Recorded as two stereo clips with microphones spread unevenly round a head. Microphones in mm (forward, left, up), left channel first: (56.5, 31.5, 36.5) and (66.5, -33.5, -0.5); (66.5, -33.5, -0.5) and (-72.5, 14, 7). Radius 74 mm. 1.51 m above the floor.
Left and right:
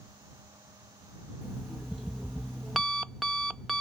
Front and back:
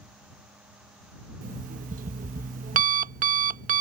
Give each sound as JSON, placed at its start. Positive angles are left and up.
{"t": 1.4, "sound": "an alarm clock", "azimuth_deg": 165}